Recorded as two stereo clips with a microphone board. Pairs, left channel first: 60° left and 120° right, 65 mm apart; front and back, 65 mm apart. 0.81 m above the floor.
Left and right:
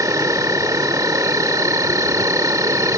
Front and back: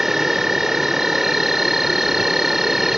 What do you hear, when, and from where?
0.0 s an insect: 95° right